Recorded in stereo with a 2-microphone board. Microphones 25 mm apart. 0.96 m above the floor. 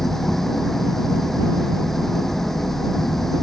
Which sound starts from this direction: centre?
An engine running, at 0.0 s.